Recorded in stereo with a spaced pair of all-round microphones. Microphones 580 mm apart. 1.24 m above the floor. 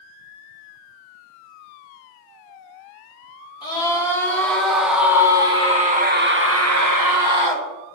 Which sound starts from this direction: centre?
A scream, at 3.6 s.